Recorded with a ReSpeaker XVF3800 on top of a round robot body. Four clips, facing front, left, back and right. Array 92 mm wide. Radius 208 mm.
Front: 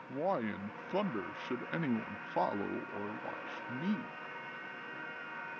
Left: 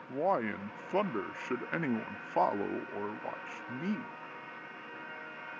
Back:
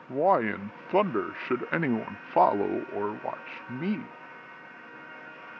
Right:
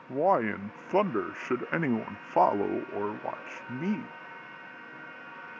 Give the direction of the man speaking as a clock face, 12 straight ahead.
5 o'clock.